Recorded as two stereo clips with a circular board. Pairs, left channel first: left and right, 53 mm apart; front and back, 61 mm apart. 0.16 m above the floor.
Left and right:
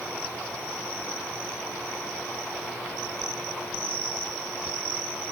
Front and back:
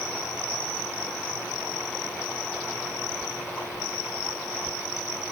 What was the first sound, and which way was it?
Only background noise.